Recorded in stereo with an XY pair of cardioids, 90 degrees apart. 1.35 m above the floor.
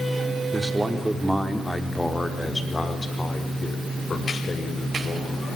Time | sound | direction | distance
0.5 | a man speaking | 20° right | 4 m